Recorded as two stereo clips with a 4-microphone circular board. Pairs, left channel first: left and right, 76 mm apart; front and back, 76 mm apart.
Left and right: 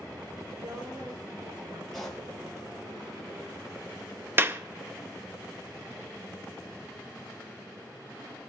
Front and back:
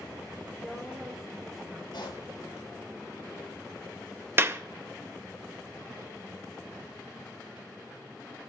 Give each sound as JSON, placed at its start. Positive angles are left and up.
{"t": 0.6, "sound": "a woman speaking", "azimuth_deg": -95, "distance_m": 3.5}
{"t": 1.9, "sound": "a pop", "azimuth_deg": 0, "distance_m": 5.0}
{"t": 4.4, "sound": "a clap", "azimuth_deg": -135, "distance_m": 0.6}